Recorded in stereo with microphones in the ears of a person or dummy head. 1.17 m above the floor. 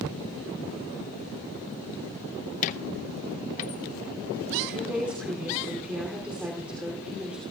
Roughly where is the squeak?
Left.